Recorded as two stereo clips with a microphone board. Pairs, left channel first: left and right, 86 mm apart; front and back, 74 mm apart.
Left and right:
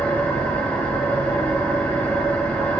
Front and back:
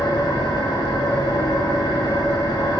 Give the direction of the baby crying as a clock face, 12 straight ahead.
I don't hear a baby crying.